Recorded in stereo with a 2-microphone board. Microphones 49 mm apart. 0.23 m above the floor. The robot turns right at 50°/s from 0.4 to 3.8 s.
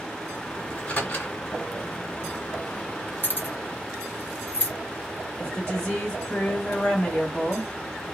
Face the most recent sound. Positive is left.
turn(degrees=15)  # may be behind; listen again after turning